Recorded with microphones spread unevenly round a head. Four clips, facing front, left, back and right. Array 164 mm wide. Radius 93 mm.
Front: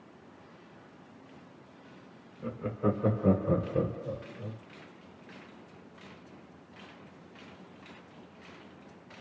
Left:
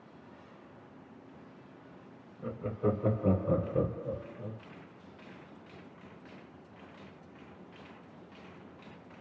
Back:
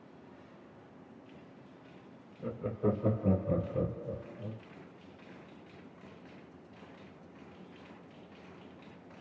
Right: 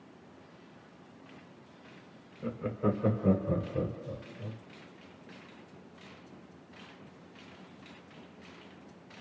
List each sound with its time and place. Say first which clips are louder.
2.4 s laughter: right 1 dB, front 2 dB; 140° right, 1.0 m; by 4.6 s 35° left, 1.1 m